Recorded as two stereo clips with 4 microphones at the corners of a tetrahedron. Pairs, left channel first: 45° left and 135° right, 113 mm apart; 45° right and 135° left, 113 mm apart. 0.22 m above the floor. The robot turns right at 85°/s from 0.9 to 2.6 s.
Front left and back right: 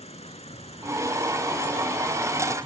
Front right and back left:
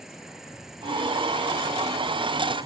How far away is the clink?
I don't hear a clink.